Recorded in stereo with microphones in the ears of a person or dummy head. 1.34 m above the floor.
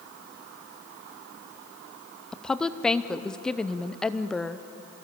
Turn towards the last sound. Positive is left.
turn(degrees=5)  # may be behind; listen again after turning